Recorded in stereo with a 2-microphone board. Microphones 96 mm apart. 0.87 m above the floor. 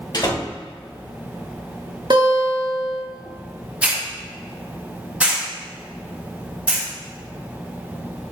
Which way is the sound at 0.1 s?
50° left (ahead or behind).